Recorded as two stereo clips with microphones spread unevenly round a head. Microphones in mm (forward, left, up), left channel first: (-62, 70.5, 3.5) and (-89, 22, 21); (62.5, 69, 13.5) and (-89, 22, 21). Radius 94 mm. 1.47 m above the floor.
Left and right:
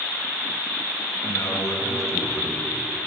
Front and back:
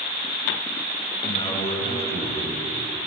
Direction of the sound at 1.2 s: 70° left.